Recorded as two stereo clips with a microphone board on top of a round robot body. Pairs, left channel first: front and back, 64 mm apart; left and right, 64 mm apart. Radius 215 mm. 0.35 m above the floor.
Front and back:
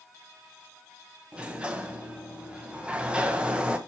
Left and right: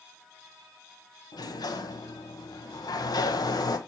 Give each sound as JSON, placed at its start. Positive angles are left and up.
{"t": 1.3, "sound": "a sliding door", "azimuth_deg": 105, "distance_m": 1.7}